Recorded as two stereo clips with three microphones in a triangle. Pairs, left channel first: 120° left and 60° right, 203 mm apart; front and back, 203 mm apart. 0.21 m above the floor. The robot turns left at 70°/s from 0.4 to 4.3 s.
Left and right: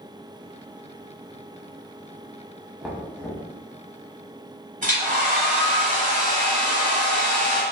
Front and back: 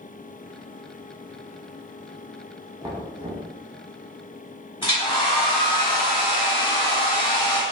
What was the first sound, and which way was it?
Knocking, 140° right.